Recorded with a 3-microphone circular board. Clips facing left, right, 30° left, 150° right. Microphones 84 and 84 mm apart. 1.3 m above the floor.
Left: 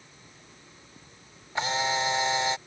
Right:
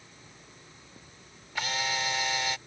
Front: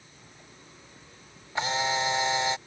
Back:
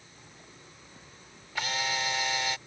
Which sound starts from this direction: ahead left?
A camera shutter, at 1.6 s.